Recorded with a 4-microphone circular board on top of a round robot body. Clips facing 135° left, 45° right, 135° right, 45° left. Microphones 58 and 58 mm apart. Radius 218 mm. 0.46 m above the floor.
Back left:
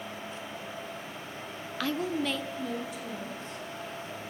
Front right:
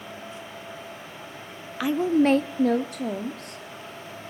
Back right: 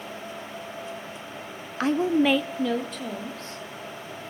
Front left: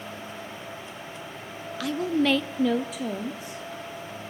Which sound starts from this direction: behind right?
A woman speaking, at 1.8 s.